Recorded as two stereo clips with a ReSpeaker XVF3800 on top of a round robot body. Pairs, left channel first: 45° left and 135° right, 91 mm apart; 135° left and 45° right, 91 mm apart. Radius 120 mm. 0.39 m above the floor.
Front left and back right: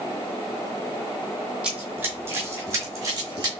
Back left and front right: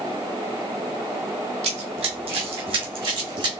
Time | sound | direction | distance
1.6 | running footsteps | 55° right | 1.0 m